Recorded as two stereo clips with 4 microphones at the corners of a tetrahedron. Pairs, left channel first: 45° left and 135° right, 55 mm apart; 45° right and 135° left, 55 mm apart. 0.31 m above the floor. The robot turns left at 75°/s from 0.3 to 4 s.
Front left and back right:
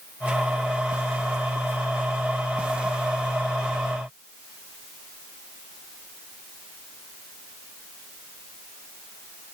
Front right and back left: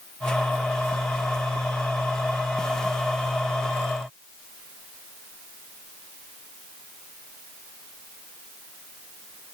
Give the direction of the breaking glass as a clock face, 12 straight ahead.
No breaking glass in this recording.